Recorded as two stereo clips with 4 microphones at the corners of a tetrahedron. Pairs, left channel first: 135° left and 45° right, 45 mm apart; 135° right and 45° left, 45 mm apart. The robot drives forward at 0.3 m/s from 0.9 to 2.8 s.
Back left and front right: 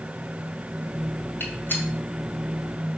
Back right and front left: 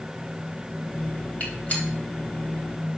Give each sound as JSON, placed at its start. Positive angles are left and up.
{"t": 1.4, "sound": "a gunshot", "azimuth_deg": 170, "distance_m": 2.0}